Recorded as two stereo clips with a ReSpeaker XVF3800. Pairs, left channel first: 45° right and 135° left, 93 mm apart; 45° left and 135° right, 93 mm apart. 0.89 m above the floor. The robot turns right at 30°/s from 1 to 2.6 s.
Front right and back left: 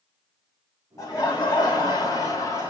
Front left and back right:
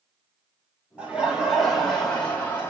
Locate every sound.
1.0 s laughter: 65° right, 1.1 m; by 2.7 s 15° right, 1.1 m